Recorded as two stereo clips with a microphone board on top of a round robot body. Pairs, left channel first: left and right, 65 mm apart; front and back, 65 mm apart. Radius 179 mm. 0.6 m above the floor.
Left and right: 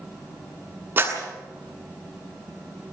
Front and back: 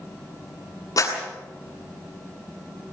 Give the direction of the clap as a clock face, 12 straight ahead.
1 o'clock.